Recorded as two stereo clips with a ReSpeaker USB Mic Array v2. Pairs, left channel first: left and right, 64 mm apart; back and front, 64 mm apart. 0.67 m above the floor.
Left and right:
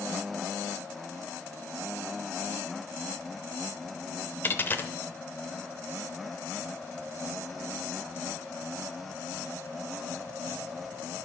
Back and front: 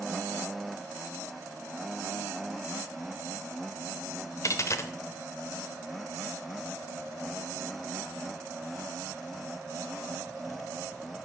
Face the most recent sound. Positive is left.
turn(degrees=145)